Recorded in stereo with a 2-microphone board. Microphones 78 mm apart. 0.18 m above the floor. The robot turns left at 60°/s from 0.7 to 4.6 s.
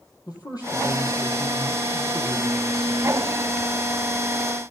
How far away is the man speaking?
About 5 m.